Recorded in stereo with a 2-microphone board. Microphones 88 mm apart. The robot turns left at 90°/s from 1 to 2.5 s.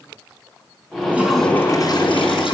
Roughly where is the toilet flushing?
Behind.